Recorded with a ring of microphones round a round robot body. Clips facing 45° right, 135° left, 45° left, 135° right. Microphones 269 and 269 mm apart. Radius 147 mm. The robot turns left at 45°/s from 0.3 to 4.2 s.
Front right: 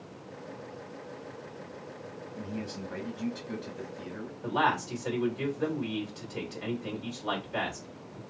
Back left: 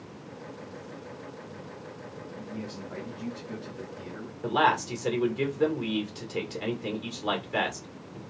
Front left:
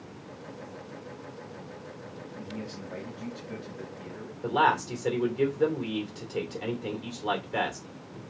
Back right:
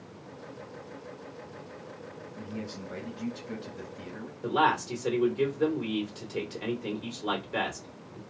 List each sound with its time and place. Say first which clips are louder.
2.4 s a man speaking: front right 2 dB, back right 1 dB; 55° right, 1.2 m; by 4.3 s 140° right, 1.2 m
4.4 s a man speaking: back left 4 dB, even; 140° left, 2 m